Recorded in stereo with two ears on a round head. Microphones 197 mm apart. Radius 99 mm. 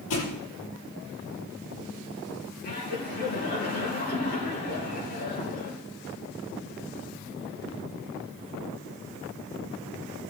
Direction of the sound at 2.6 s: 45° left (ahead or behind).